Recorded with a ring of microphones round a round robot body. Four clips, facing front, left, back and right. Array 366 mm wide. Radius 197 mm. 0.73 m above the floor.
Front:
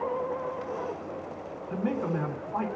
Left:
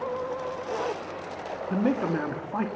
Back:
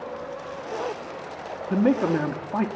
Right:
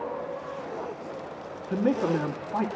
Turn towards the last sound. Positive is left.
turn(degrees=175)